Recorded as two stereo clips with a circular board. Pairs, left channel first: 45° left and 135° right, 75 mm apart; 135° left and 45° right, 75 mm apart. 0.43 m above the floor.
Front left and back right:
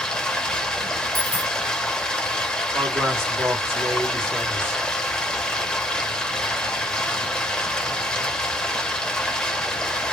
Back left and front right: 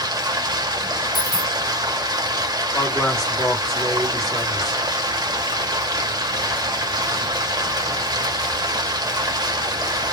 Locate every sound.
0.0 s running water: 30° right, 0.8 m
1.1 s a dropped coin: 120° left, 0.6 m
2.7 s a man speaking: 150° right, 1.6 m